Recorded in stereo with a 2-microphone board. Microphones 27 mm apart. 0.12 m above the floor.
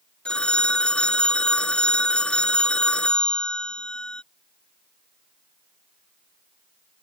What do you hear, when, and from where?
0.2 s a phone ringing: 40° left (ahead or behind)